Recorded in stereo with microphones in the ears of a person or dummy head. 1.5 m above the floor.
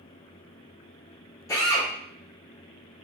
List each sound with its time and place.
1.5 s a drill: 20° left (ahead or behind), 2 m